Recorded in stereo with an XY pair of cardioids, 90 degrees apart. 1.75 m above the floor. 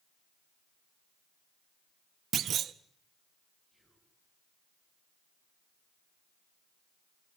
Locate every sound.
2.3 s a clunk: 65° right, 0.7 m
3.7 s whispering: 15° right, 9 m